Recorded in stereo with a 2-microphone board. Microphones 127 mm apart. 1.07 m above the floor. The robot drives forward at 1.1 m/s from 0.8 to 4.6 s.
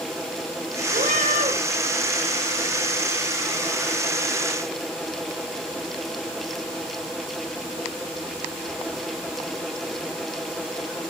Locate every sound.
0.9 s a cat meowing: 85° right, 3.5 m